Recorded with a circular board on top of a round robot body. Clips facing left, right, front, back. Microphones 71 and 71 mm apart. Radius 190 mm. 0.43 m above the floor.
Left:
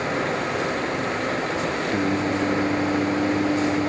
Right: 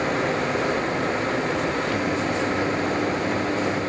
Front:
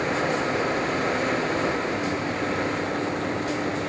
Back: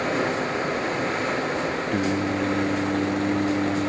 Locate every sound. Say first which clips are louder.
1.9 s singing: left 1 dB, back 3 dB; 150° left, 0.6 m